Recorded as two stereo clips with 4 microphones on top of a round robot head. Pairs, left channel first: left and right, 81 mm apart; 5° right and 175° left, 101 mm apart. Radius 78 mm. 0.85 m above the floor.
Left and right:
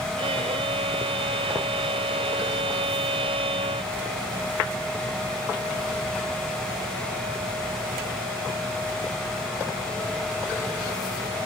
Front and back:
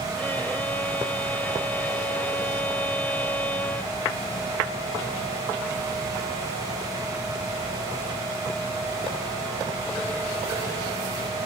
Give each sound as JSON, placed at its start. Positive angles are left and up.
{"t": 0.2, "sound": "a violin", "azimuth_deg": -80}